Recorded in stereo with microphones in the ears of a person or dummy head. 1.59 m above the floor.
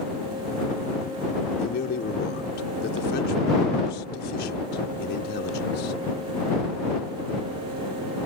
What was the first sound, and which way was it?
A man speaking, 70° left (ahead or behind).